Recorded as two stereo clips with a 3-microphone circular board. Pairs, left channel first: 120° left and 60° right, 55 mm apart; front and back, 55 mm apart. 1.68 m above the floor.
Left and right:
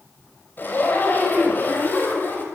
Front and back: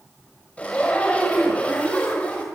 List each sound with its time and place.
0.6 s a zipper: 65° left, 6 m